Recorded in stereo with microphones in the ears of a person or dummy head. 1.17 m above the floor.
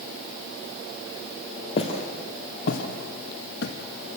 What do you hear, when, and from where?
1.8 s footsteps: 35° left (ahead or behind), 2 m; by 3.7 s 65° left (ahead or behind), 2.5 m